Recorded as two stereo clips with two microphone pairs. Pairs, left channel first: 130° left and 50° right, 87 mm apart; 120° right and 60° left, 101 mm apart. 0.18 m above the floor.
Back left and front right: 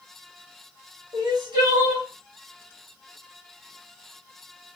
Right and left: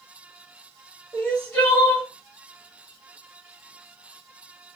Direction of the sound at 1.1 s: 50° right.